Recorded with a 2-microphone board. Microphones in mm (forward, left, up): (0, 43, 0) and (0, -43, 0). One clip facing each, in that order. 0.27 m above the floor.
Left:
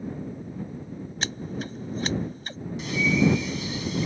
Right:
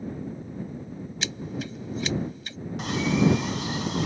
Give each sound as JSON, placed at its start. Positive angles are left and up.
{"t": 1.2, "sound": "scissors", "side_deg": 40}
{"t": 2.8, "sound": "a bird", "side_deg": -55}